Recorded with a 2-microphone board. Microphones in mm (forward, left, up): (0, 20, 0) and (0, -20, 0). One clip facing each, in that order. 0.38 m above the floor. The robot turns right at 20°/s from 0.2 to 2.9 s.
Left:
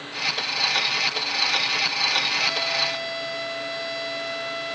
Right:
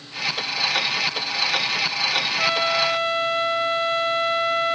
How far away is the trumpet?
About 0.8 m.